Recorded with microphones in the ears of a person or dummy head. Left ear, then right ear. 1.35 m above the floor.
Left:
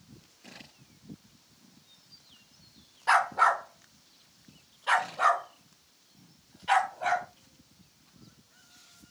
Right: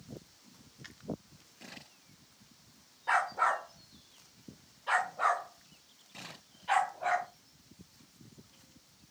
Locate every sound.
3.1 s a dog barking: 45° left (ahead or behind), 1.8 m; by 7.3 s 25° left (ahead or behind), 4 m